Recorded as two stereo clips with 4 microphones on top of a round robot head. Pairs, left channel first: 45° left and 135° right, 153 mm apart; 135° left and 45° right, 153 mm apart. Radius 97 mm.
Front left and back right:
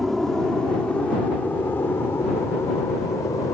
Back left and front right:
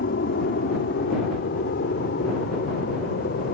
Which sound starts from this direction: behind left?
An aircraft, at 0.0 s.